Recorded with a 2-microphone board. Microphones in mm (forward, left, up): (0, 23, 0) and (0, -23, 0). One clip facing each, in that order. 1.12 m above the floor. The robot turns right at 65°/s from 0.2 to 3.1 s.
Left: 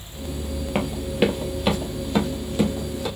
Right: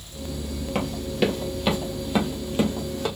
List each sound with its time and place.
0.8 s running footsteps: 25° left (ahead or behind), 1.3 m; by 3.1 s 50° right (ahead or behind), 2 m